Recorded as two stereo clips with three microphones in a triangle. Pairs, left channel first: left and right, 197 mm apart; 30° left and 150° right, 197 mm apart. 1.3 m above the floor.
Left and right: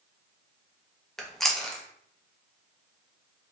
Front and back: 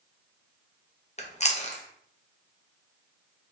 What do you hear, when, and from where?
1.2 s chewing: 5° left, 0.6 m